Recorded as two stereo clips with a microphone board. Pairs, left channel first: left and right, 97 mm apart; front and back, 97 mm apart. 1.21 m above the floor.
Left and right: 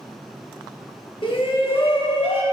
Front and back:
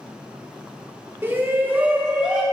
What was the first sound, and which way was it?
A shout, 115° left.